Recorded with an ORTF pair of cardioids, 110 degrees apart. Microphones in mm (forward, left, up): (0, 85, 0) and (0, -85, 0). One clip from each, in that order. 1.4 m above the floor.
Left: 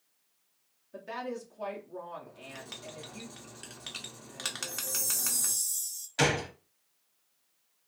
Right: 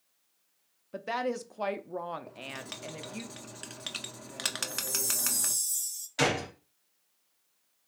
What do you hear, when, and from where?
0.9 s a woman speaking: 45° right, 0.5 m
2.3 s writing: 20° right, 0.5 m
4.7 s a chime: 5° right, 0.5 m
6.2 s a gunshot: 10° left, 0.7 m